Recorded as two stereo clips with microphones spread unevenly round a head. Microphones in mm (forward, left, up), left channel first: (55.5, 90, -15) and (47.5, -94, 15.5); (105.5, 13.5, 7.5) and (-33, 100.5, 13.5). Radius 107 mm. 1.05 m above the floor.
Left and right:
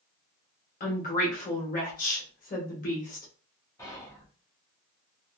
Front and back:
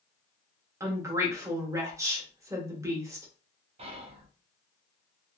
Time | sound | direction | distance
0.8 | a woman speaking | 80° left | 1.0 m
3.8 | whispering | 135° left | 0.7 m